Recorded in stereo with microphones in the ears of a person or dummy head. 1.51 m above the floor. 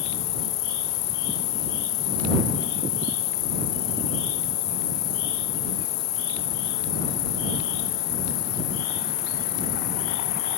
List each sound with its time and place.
0.0 s an insect: 60° left (ahead or behind)